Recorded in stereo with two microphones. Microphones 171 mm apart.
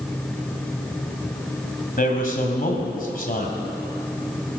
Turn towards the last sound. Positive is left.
turn(degrees=55)  # may be behind; listen again after turning